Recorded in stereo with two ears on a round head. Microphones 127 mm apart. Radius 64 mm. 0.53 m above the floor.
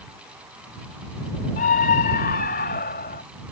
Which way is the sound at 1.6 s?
60° left (ahead or behind).